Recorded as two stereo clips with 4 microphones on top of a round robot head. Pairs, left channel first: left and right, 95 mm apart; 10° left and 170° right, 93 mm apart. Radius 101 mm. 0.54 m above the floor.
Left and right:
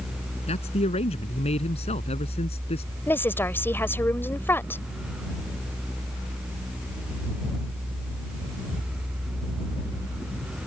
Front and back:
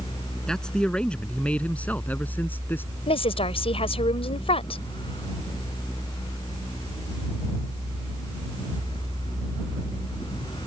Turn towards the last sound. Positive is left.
turn(degrees=25)